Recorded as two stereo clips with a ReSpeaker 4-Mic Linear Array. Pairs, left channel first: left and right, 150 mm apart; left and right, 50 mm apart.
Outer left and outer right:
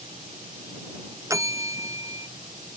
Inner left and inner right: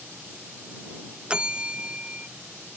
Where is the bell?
20° right (ahead or behind).